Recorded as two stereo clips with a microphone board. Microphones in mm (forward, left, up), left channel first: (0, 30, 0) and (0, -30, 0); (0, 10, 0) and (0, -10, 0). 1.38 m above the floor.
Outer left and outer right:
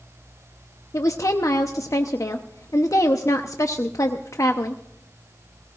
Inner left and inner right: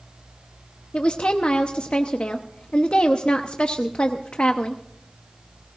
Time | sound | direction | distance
0.9 | a woman speaking | 65° left (ahead or behind) | 0.8 m